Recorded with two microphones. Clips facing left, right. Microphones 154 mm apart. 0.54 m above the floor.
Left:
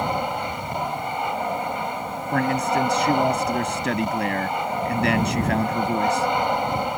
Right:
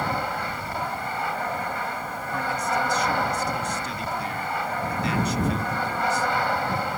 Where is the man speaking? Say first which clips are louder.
Left 6 dB; 75° left (ahead or behind).